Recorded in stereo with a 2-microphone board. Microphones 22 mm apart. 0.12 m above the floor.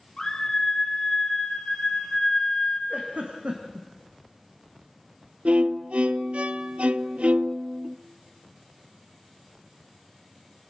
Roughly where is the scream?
Left.